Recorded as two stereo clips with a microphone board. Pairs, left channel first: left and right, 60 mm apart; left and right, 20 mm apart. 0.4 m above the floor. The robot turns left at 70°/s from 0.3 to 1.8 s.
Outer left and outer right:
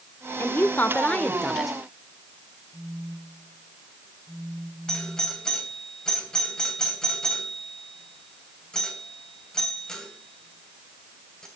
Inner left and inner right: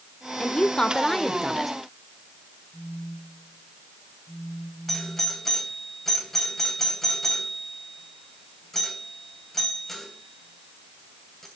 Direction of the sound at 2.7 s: 40° right (ahead or behind).